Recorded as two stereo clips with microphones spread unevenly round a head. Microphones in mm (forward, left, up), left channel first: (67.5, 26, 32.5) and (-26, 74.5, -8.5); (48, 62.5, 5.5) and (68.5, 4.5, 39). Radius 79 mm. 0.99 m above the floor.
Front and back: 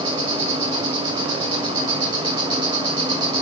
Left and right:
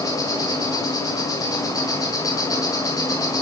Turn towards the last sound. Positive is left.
turn(degrees=115)